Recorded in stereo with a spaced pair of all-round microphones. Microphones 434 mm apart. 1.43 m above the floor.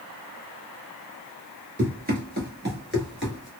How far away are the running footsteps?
About 1.5 m.